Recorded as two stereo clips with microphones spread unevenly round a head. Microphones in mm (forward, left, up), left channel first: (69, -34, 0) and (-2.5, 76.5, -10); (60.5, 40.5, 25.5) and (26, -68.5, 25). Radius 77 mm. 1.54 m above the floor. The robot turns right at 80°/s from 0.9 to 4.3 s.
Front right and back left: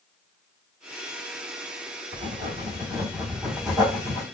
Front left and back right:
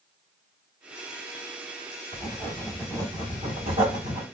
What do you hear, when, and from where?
2.1 s writing: 125° left, 1.5 m; by 4.2 s 70° right, 1.5 m